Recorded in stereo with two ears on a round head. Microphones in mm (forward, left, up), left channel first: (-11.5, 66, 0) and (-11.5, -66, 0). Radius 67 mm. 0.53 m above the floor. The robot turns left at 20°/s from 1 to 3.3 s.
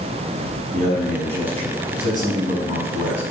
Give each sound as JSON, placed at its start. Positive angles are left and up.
{"t": 0.7, "sound": "a man speaking", "azimuth_deg": -125, "distance_m": 5.5}